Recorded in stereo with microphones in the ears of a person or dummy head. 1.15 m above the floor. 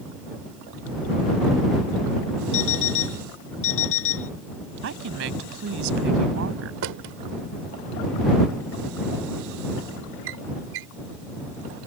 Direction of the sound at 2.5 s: 70° left (ahead or behind).